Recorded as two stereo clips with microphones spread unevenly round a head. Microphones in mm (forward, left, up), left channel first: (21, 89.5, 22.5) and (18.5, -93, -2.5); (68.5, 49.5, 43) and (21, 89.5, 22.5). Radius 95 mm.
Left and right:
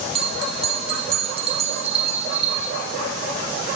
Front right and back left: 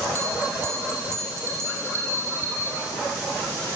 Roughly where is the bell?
Behind right.